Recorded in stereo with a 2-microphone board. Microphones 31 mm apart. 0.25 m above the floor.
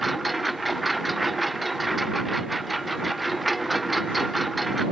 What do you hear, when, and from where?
0.0 s a lawn mower: centre (ahead or behind)